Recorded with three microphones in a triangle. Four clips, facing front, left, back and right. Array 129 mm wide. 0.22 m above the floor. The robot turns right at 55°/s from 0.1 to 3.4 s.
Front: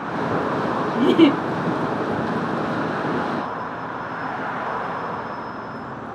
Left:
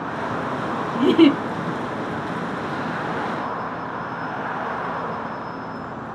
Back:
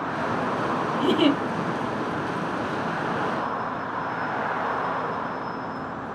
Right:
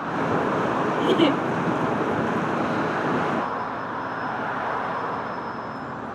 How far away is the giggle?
About 2 m.